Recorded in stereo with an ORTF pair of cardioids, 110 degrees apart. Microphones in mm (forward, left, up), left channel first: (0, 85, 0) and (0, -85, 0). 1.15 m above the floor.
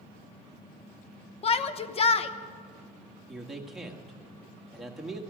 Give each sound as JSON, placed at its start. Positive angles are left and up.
{"t": 1.4, "sound": "a shout", "azimuth_deg": 40, "distance_m": 0.9}
{"t": 3.3, "sound": "a man speaking", "azimuth_deg": 0, "distance_m": 1.7}